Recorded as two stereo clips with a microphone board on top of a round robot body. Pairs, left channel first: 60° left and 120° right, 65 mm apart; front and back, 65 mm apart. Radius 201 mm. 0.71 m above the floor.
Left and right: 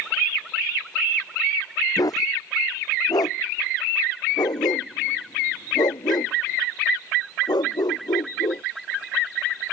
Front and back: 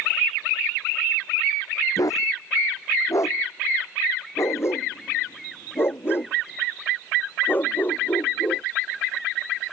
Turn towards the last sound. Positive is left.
turn(degrees=65)